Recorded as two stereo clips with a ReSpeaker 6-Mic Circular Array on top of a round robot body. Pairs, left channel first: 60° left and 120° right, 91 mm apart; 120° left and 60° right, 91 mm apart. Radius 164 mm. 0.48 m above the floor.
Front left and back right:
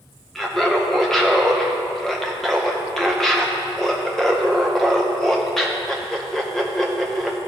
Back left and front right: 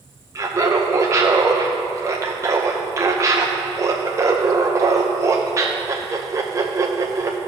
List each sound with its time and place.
0.3 s laughter: 25° right, 0.8 m